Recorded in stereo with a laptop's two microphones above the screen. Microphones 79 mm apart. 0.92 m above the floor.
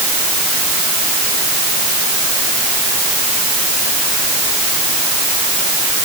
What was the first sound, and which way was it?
Only background noise.